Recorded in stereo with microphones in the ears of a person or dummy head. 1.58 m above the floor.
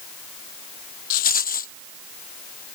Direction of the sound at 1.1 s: 45° left (ahead or behind).